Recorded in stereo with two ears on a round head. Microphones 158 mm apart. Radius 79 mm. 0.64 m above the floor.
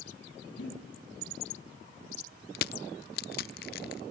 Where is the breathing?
75° left (ahead or behind), 4 m.